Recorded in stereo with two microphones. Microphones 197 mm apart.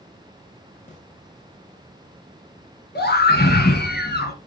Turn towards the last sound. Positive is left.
turn(degrees=55)  # may be behind; listen again after turning